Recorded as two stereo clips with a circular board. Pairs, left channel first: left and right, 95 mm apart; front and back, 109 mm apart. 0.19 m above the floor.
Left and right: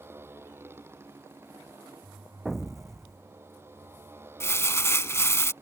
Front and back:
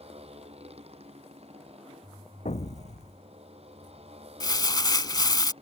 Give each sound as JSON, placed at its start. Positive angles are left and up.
{"t": 0.0, "sound": "a motorcycle", "azimuth_deg": -155}
{"t": 2.5, "sound": "an explosion", "azimuth_deg": 0}
{"t": 4.4, "sound": "crumpling", "azimuth_deg": 35}